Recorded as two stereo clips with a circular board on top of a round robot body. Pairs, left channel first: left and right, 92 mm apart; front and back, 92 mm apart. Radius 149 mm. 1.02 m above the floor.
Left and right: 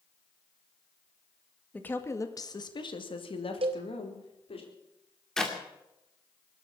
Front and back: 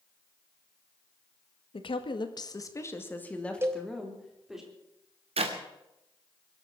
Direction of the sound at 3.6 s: 115° right.